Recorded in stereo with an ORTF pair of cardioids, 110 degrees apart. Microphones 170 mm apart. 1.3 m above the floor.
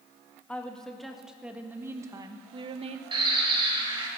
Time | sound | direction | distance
0.5 | a woman speaking | 5° left | 1.9 m
3.1 | a bird | 30° right | 2.5 m